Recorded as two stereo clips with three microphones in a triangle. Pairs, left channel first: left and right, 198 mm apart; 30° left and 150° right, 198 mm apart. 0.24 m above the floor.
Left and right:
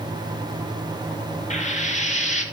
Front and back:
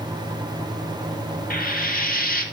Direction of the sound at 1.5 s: 50° left.